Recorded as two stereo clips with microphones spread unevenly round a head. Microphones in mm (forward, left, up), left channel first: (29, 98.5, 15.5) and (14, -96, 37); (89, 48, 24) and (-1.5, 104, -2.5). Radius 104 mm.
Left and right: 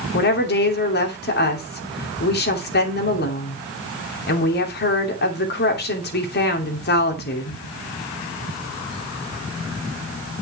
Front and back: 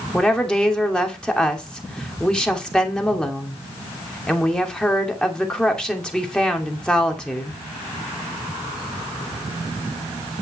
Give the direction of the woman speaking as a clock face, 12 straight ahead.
10 o'clock.